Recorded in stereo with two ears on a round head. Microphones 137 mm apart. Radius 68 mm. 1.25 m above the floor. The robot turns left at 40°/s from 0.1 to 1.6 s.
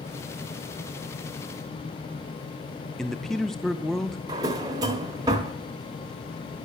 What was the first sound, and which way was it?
A man speaking, 5° left (ahead or behind).